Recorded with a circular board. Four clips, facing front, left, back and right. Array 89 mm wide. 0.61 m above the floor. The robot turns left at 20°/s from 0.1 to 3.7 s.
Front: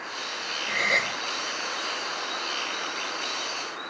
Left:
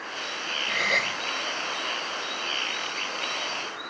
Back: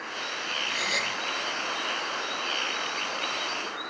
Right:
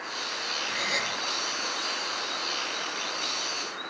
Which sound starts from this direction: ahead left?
A gasp, at 0.7 s.